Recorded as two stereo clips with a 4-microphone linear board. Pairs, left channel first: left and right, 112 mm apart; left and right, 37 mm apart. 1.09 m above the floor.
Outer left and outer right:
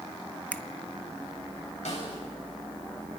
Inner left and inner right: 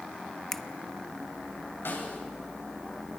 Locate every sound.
0.5 s a finger snap: 10° left (ahead or behind), 0.7 m
1.9 s a snare drum: 85° left, 8 m